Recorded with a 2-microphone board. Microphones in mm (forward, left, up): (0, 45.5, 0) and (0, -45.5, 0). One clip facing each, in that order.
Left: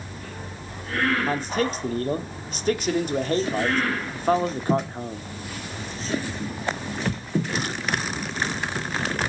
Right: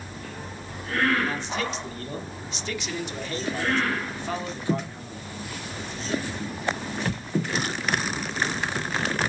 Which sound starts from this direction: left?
A man speaking, at 1.3 s.